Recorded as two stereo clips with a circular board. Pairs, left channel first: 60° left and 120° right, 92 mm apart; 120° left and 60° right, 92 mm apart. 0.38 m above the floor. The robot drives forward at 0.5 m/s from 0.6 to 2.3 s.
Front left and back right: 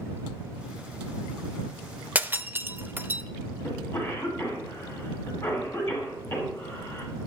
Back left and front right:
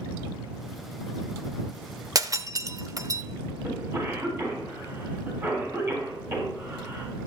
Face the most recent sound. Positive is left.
turn(degrees=-5)